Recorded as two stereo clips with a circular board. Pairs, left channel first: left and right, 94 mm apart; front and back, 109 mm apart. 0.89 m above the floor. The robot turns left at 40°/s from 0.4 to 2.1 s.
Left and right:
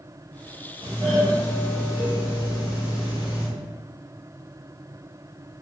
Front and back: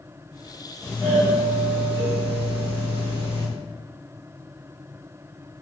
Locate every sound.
0.8 s a doorbell: 110° right, 2.0 m; by 3.5 s 160° right, 2.0 m